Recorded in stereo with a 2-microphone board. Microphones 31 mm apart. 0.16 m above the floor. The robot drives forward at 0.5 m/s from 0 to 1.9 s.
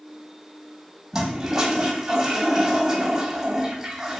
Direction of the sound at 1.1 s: 20° right (ahead or behind).